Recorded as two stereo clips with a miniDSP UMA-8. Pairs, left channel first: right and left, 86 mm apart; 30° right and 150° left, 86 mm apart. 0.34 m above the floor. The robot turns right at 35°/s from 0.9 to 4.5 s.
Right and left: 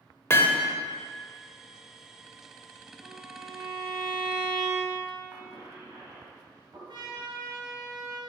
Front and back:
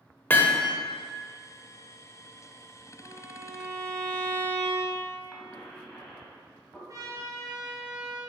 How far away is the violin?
About 1.5 m.